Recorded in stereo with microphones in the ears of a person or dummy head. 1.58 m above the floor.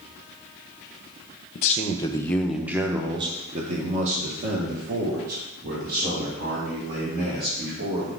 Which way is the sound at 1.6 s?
45° left (ahead or behind).